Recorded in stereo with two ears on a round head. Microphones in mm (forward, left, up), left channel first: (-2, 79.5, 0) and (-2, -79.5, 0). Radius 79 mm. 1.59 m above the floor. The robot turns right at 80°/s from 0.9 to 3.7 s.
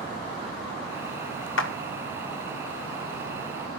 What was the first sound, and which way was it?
A clap, 75° left (ahead or behind).